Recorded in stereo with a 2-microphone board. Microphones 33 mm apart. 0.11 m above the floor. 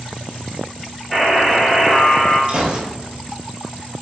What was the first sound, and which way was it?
A buzzer, 5° right (ahead or behind).